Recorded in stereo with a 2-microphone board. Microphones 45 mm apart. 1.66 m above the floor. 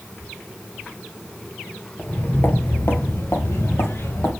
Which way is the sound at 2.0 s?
40° left (ahead or behind).